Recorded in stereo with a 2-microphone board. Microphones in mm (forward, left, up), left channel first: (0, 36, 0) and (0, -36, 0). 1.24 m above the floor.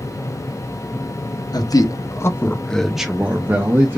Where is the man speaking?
65° left (ahead or behind), 0.8 m; by 4.0 s 40° right (ahead or behind), 0.9 m.